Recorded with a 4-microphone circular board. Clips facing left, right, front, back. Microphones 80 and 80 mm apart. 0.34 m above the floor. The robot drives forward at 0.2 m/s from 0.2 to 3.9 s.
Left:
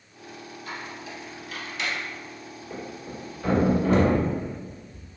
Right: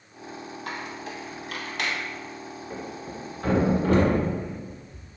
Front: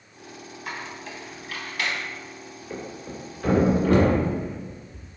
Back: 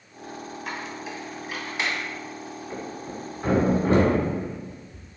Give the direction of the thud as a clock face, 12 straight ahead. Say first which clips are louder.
Left 1 dB, front 1 dB; 4 o'clock.